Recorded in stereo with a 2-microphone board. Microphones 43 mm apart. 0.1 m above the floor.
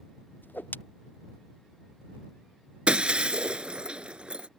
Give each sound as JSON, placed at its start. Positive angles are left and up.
{"t": 0.4, "sound": "a whoosh", "side_deg": 45}
{"t": 2.9, "sound": "breaking glass", "side_deg": -25}